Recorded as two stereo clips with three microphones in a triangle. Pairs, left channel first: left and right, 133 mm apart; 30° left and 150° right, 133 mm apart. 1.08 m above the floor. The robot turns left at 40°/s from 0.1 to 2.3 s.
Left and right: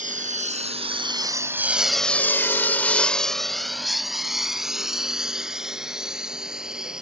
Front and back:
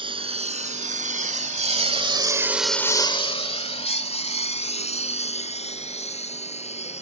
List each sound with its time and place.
0.0 s a lawn mower: 100° right; by 7.0 s 5° right